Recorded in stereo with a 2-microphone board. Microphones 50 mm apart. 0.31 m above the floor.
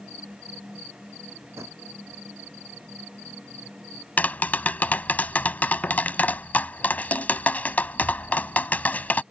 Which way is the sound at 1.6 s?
65° right (ahead or behind).